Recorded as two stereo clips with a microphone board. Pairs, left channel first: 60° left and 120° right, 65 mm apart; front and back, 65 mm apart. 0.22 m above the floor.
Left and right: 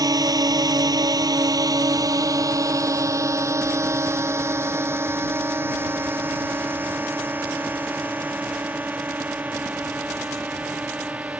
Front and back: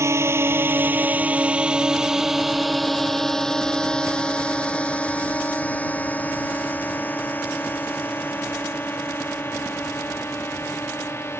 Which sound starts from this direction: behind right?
A drone, at 0.0 s.